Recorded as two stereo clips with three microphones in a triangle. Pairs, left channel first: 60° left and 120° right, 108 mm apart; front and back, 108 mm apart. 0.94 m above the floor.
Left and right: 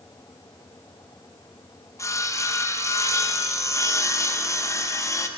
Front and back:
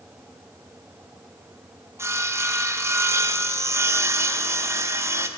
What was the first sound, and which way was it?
Sawing, 115° left.